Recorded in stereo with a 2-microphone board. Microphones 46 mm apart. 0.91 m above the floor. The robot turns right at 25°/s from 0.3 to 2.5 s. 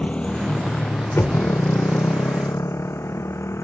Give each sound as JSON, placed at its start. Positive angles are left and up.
{"t": 0.0, "sound": "a motorcycle", "side_deg": 25}
{"t": 1.2, "sound": "knocking", "side_deg": 65}